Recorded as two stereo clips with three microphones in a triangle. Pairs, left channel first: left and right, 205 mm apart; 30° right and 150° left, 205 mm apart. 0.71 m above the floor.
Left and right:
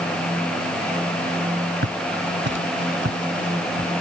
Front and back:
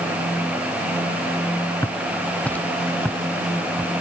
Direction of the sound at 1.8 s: 110° right.